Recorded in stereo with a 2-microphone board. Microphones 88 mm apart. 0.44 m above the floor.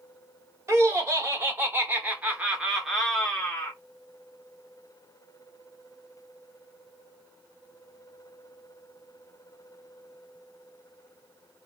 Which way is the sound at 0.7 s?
35° right (ahead or behind).